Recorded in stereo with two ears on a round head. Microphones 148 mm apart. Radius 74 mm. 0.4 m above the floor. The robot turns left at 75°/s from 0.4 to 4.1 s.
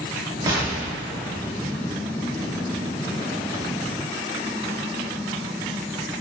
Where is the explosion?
20° right (ahead or behind), 0.6 m; by 2.0 s 25° left (ahead or behind), 0.6 m.